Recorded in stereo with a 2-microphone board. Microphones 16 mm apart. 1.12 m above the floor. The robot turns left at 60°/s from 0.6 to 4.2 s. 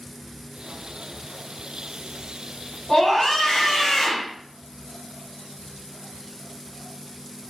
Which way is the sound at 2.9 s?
160° left.